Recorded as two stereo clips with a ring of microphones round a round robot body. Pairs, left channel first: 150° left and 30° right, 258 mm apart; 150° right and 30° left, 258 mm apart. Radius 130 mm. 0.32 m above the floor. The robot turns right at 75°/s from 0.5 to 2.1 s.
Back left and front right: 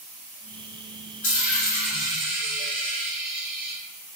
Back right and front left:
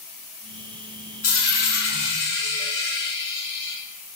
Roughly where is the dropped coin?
Behind.